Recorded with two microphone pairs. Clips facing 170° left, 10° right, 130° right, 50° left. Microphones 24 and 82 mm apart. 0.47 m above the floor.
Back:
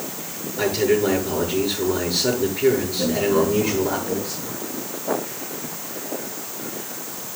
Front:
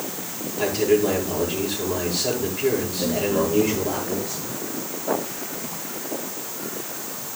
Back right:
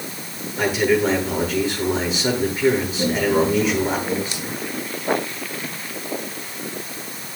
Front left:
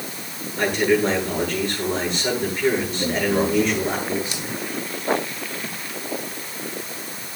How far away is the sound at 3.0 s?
About 6 m.